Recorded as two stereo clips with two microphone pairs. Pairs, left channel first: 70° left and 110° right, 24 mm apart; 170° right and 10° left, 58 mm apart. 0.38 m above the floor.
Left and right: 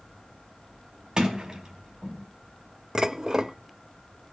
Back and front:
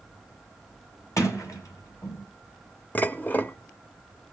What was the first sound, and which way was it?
A sliding door, 160° right.